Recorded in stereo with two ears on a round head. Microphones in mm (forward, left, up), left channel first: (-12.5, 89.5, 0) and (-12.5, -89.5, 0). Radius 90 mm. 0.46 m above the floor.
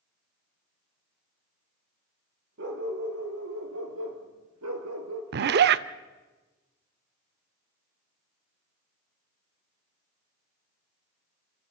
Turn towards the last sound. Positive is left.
turn(degrees=-55)  # may be behind; listen again after turning